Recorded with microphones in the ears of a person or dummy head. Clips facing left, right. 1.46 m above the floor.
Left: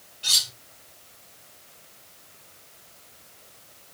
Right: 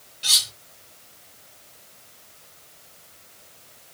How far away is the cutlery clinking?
About 1.1 m.